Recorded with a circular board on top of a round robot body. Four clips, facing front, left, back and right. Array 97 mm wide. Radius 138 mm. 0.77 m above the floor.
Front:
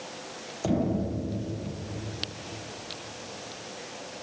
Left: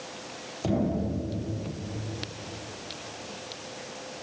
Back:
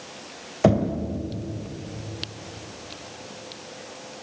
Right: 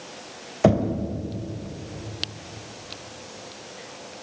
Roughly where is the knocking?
Behind right.